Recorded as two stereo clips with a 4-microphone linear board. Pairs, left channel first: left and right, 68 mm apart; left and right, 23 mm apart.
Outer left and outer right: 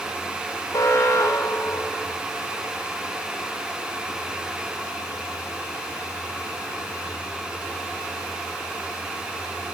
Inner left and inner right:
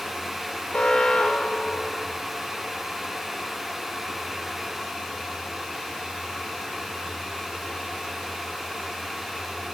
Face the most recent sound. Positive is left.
turn(degrees=60)  # may be behind; listen again after turning